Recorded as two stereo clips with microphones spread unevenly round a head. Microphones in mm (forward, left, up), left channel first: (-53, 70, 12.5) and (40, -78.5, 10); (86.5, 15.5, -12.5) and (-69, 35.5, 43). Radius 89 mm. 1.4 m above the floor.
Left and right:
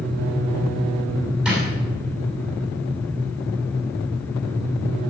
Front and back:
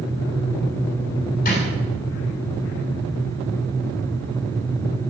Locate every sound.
1.4 s a drawer: 30° left, 8 m